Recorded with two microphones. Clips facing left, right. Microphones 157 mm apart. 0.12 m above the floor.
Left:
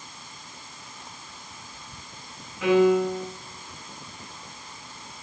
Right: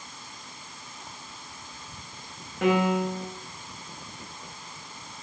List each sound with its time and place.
2.6 s a piano: 55° right (ahead or behind), 5.5 m